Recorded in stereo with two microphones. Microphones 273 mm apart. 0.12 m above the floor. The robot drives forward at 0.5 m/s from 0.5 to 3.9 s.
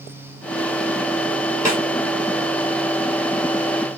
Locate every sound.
1.6 s a snare drum: 10° right (ahead or behind), 2 m